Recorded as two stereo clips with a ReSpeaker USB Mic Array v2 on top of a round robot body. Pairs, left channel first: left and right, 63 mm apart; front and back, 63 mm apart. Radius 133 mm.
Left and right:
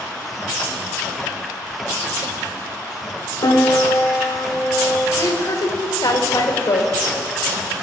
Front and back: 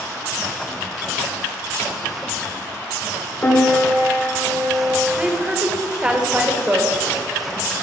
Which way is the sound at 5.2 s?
110° left.